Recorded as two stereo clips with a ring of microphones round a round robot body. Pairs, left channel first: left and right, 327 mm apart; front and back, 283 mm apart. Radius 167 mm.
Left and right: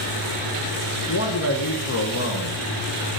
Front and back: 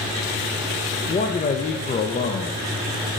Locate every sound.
1.1 s a man speaking: 60° left, 0.7 m